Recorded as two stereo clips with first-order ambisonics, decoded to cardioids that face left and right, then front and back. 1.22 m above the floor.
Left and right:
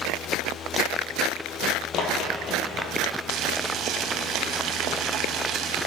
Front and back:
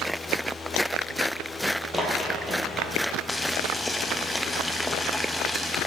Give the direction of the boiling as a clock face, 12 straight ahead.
3 o'clock.